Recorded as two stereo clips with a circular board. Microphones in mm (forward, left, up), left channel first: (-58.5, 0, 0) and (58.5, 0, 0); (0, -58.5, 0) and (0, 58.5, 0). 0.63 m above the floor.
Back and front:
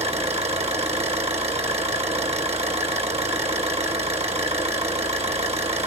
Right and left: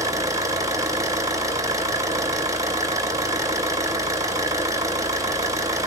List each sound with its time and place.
0.0 s an engine running: 30° left, 2.5 m